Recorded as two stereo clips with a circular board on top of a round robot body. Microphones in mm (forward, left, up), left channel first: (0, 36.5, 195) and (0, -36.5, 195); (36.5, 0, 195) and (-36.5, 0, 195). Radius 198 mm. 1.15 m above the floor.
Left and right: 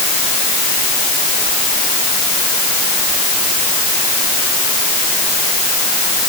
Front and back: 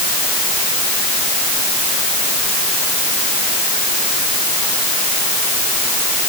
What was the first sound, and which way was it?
Only background noise.